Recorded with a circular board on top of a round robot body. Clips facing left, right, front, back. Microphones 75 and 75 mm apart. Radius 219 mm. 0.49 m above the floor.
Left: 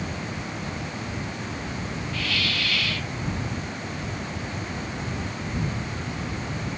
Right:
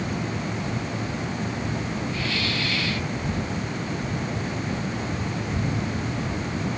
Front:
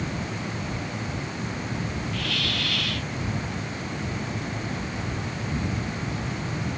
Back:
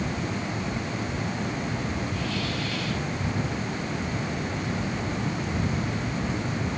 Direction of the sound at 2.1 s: 25° right.